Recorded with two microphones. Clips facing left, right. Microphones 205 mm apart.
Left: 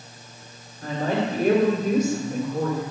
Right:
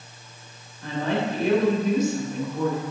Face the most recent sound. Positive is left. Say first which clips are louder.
# left 1 dB
turn(degrees=55)  # may be behind; listen again after turning